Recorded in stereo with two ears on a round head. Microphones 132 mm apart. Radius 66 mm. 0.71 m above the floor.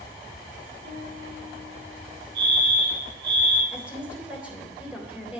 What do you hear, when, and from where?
0.8 s a piano: 80° right, 7 m
2.4 s a fire alarm: 75° right (ahead or behind), 7.5 m
3.7 s a woman speaking: 10° right (ahead or behind), 3.5 m